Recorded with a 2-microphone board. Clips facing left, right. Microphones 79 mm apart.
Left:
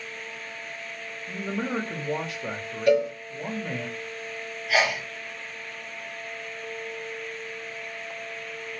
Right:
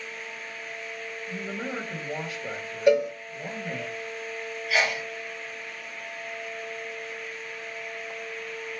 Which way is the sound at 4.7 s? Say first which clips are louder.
Left 2 dB; 60° left (ahead or behind).